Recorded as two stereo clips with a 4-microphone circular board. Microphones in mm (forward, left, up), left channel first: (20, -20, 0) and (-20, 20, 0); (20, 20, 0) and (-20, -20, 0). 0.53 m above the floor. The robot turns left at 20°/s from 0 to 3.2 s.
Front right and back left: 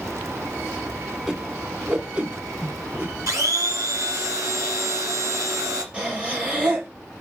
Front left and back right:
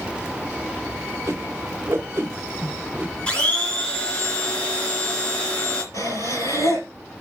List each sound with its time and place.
1.3 s a whoosh: 150° right, 1.6 m; by 3.1 s 170° left, 1.6 m
3.3 s a blender: 115° left, 2.5 m
5.9 s breathing: 65° left, 3.5 m